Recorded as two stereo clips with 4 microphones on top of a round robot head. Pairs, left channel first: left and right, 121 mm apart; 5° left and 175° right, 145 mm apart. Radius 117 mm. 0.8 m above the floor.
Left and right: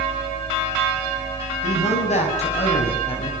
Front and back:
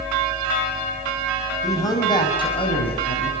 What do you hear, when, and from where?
1.6 s a man speaking: 70° left, 6 m; by 3.3 s 50° left, 7 m